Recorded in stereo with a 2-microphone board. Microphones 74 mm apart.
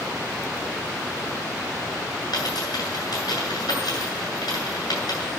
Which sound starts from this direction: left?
A dropped coin, at 2.3 s.